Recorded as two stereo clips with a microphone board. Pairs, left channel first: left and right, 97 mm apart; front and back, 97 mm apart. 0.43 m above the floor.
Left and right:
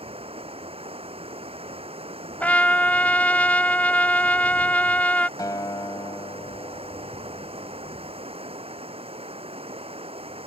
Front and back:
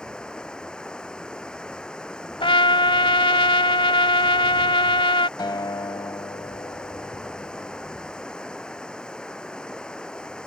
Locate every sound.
0.0 s running water: 80° right
2.4 s a trumpet: 15° left
5.4 s a guitar: 40° left